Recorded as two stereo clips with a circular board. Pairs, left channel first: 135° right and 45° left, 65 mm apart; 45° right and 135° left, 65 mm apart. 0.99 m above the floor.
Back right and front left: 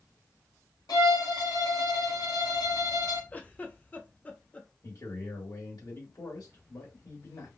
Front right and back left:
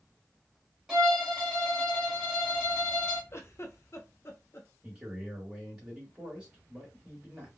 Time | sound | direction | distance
0.9 | a violin | 145° right | 1.7 m
3.3 | a giggle | 75° right | 0.7 m
4.8 | a man speaking | 155° right | 1.7 m